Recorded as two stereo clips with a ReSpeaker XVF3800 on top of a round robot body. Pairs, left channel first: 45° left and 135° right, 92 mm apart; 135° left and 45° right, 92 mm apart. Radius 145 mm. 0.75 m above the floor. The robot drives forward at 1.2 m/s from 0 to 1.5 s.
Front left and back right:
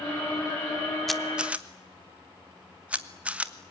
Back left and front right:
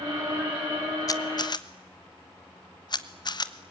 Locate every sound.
1.1 s a camera shutter: 130° left, 1.3 m; by 3.5 s 150° left, 1.5 m